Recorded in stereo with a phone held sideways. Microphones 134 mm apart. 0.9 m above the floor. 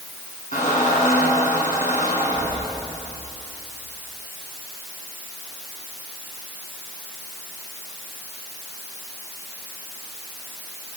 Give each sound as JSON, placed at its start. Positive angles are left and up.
{"t": 0.5, "sound": "a squeak", "side_deg": 70, "distance_m": 7.5}